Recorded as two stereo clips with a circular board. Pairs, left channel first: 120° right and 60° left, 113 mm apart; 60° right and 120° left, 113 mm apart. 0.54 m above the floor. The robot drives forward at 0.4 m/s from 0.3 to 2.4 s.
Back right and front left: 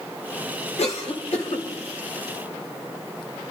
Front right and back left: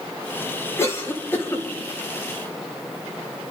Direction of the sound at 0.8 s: 125° right.